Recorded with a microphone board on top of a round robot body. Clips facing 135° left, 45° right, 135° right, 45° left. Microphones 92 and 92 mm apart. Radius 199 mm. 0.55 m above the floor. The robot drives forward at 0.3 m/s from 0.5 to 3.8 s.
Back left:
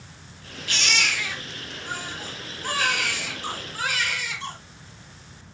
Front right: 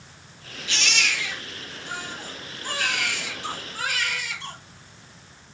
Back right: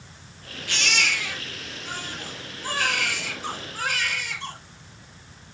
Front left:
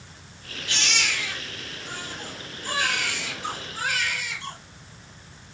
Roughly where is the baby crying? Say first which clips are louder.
Back left 1 dB, back right 2 dB; behind.